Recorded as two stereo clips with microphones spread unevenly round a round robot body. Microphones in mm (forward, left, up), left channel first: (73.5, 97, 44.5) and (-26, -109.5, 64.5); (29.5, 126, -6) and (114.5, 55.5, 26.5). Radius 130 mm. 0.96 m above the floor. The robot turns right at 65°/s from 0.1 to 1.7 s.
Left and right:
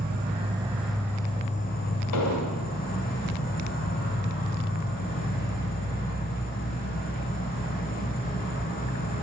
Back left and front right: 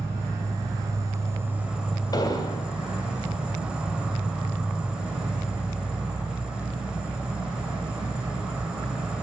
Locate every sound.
0.0 s an insect: 85° right, 0.9 m; by 9.2 s 20° left, 0.9 m
2.1 s an explosion: 80° left, 1.1 m